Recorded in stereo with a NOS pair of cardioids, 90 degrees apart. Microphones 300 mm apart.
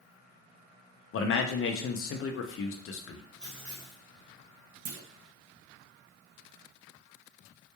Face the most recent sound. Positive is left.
turn(degrees=-65)